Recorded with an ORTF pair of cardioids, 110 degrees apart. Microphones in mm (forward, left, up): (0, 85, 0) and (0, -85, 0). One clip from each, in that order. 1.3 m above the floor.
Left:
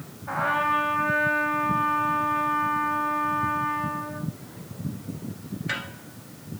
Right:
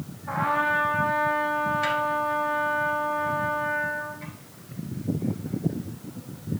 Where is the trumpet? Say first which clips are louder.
Even; 10° left, 3 m.